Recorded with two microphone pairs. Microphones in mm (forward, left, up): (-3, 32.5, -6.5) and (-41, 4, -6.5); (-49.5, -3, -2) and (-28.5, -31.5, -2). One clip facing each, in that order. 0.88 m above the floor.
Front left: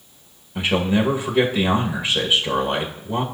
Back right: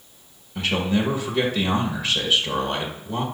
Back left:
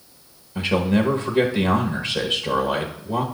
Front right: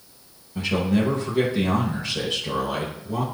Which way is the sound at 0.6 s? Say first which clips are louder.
Front left 3 dB, back left 2 dB; 90° left.